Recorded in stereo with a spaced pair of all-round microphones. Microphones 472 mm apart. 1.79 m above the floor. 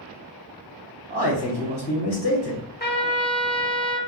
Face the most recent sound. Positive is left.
turn(degrees=20)  # may be behind; listen again after turning